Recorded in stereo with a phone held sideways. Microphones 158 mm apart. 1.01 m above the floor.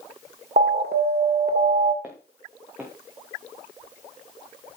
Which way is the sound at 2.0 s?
10° right (ahead or behind).